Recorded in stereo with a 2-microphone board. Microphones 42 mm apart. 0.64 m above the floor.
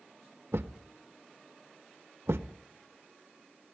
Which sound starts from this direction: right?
A thud, at 0.5 s.